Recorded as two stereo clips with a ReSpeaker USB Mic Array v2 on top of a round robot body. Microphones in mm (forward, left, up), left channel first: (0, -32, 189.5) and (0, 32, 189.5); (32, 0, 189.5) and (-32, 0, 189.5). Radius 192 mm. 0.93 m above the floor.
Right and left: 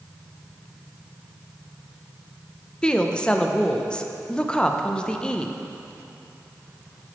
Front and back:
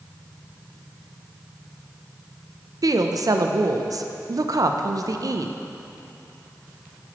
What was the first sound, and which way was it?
A woman speaking, 165° right.